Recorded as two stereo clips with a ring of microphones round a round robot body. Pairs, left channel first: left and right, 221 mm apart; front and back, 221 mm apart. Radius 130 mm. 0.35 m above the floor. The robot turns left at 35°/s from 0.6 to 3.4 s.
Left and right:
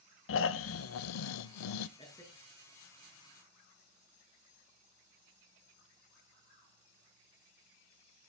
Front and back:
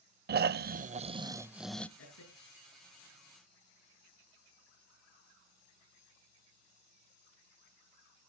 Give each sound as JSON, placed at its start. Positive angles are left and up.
{"t": 0.3, "sound": "snoring", "azimuth_deg": 130, "distance_m": 0.5}
{"t": 2.0, "sound": "a man speaking", "azimuth_deg": 25, "distance_m": 6.0}